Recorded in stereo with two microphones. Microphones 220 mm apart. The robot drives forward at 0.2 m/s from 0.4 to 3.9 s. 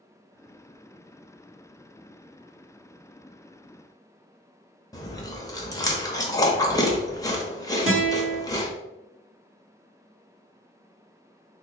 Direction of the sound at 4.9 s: 15° left (ahead or behind).